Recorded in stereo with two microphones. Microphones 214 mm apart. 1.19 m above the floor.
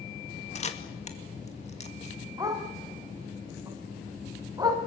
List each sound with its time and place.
0.6 s a camera shutter: 30° left (ahead or behind), 2 m
2.4 s a dog barking: 20° right (ahead or behind), 4 m